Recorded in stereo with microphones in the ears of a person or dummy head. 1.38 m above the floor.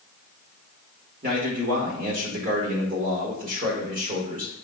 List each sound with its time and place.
1.2 s a man speaking: 50° right (ahead or behind), 1.3 m